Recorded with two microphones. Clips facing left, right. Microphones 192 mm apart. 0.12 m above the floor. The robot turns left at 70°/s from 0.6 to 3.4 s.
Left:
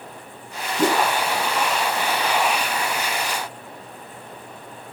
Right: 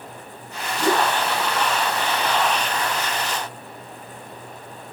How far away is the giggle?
I don't hear a giggle.